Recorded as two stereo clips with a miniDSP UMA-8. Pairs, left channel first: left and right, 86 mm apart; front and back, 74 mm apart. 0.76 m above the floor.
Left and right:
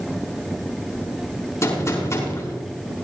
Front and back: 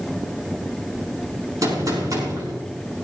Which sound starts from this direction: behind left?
A gunshot, at 1.6 s.